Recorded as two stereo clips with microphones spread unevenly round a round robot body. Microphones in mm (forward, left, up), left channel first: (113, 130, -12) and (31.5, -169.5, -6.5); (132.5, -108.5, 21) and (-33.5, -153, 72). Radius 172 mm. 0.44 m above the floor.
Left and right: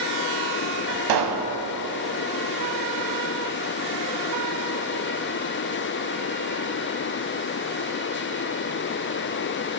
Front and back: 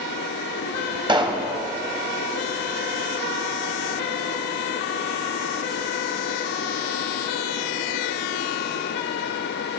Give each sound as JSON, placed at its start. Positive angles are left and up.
{"t": 1.1, "sound": "a pop", "azimuth_deg": -95, "distance_m": 1.5}